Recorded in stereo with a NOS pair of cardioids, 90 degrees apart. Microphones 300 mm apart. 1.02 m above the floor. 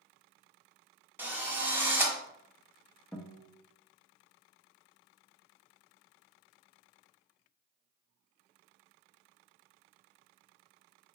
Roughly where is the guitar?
Ahead.